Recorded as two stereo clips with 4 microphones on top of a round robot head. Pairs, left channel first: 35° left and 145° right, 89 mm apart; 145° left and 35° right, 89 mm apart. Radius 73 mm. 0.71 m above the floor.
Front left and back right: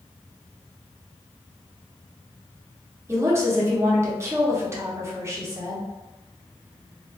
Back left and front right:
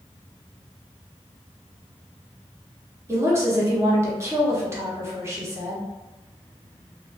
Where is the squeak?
I don't hear a squeak.